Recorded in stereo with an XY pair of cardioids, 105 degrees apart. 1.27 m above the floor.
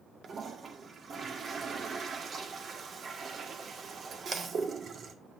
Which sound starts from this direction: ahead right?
A toilet flushing, at 0.2 s.